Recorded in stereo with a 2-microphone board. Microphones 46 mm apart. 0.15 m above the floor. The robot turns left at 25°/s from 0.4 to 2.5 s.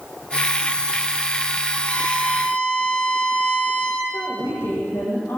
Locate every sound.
1.9 s a violin: 35° left (ahead or behind), 8 m; by 4.0 s 20° left (ahead or behind), 8 m
4.1 s a woman speaking: 70° left (ahead or behind), 7.5 m